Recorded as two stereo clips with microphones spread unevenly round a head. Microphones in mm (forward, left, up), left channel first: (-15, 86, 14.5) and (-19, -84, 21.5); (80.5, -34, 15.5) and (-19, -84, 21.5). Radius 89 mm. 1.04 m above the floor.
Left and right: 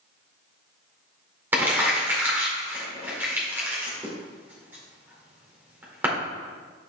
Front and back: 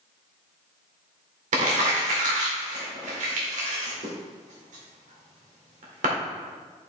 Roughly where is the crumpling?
Behind.